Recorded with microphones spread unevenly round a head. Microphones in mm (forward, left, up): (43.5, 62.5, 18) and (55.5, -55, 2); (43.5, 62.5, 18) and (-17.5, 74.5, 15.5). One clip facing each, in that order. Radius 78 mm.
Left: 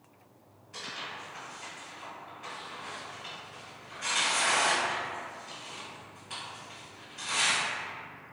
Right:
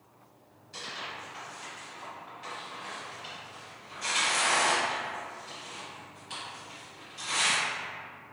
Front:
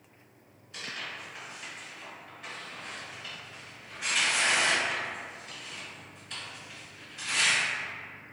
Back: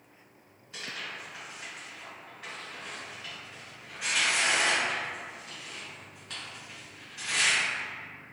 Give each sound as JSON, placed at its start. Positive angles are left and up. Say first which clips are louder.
{"t": 0.7, "sound": "tearing paper", "louder": "right 1 dB, even", "azimuth_deg": -165, "distance_m": 1.6}